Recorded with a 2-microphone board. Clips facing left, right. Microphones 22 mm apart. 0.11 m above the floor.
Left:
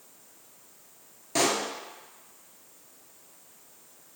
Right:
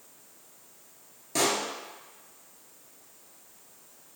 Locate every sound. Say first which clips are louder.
1.4 s a pop: left 1 dB; 10° left (ahead or behind), 0.7 m